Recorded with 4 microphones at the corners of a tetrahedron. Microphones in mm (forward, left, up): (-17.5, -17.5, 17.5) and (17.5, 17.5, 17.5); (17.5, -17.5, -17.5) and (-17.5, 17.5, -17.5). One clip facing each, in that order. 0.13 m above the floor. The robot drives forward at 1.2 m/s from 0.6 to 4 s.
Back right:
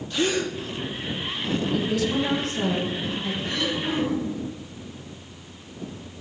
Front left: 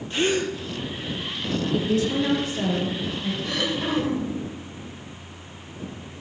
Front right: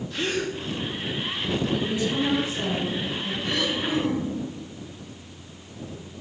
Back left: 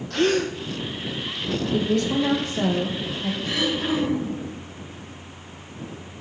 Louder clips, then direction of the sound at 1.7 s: Front left 3 dB, back left 3 dB; 95° left.